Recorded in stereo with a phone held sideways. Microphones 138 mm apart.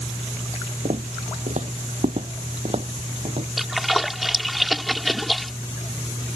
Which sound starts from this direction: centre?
A splash, at 3.6 s.